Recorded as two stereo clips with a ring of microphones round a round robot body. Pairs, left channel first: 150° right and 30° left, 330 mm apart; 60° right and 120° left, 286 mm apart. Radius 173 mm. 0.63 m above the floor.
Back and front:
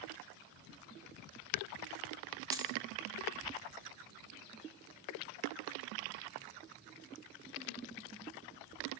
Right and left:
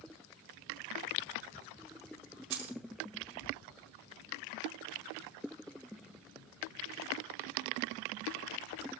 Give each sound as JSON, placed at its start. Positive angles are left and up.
{"t": 2.5, "sound": "keys jangling", "azimuth_deg": 110, "distance_m": 4.5}